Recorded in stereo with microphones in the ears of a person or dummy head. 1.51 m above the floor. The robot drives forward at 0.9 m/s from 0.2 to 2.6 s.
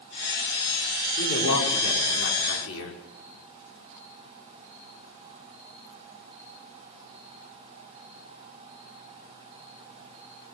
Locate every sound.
1.2 s a man speaking: 85° left, 5.5 m; by 3.0 s 80° left, 5.5 m